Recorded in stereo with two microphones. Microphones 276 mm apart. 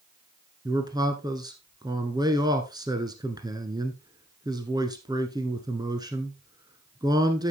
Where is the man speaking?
15° right (ahead or behind), 1.1 m.